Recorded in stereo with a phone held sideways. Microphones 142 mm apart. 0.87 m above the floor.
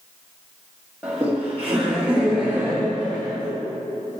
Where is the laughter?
10° right (ahead or behind), 1.8 m; by 3.5 s 15° right (ahead or behind), 3.5 m.